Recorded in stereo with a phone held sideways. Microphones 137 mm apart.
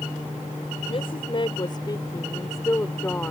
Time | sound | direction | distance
0.9 | a woman speaking | 45° left (ahead or behind) | ?